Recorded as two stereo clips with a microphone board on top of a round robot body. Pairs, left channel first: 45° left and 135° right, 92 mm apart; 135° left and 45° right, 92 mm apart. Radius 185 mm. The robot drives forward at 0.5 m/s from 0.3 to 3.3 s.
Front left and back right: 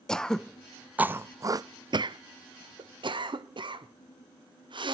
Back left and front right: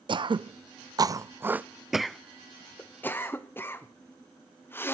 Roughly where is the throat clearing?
Ahead right.